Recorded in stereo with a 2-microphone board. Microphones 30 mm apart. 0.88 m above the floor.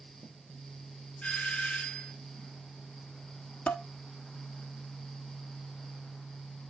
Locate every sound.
1.2 s a doorbell: 60° left (ahead or behind), 1.6 m
3.7 s dishes clattering: 55° left (ahead or behind), 1.1 m